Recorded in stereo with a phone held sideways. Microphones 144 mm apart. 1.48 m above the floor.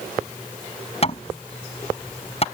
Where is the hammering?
40° left (ahead or behind).